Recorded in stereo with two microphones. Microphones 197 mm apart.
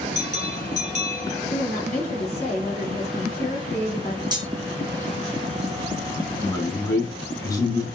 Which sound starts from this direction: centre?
A man speaking, at 6.4 s.